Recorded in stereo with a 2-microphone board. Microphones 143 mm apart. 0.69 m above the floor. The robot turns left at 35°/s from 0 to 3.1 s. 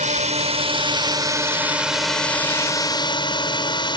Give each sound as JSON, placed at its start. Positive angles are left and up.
{"t": 0.0, "sound": "a drone", "azimuth_deg": -110}